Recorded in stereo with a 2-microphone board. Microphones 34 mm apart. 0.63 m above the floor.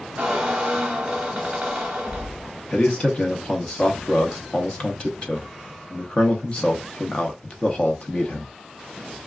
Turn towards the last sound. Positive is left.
turn(degrees=35)  # may be behind; listen again after turning